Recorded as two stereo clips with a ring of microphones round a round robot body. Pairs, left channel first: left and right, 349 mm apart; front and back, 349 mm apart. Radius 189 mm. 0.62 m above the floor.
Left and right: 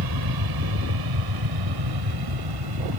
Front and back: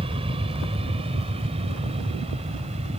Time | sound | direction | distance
0.0 | an aircraft | 105° right | ?